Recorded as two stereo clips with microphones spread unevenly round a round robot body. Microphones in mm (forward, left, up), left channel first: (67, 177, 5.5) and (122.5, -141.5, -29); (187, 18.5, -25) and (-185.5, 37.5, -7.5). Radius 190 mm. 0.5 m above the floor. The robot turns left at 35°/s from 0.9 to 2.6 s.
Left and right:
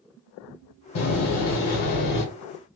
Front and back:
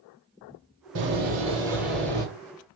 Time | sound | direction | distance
0.9 | a door slam | 120° left | 1.6 m